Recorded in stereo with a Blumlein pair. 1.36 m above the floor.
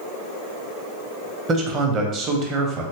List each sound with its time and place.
1.5 s a man speaking: 30° right, 0.7 m